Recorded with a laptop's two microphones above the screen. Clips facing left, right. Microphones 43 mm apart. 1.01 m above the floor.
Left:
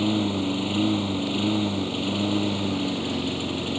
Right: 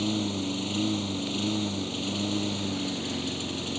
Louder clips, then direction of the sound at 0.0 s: Left 5 dB; 20° left (ahead or behind).